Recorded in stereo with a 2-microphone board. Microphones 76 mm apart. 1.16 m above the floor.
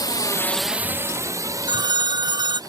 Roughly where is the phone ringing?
Right.